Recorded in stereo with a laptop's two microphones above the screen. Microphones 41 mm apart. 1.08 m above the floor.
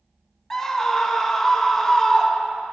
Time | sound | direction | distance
0.5 | a scream | 10° left (ahead or behind) | 0.6 m